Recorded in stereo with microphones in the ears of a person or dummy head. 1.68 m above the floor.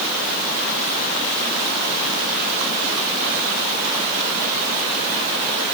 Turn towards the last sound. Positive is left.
No sound to turn to.